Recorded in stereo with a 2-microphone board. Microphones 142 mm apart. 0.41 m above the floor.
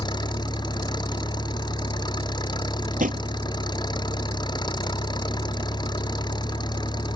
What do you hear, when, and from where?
0.0 s an engine running: 30° left (ahead or behind)
3.0 s a drawer: 65° right (ahead or behind)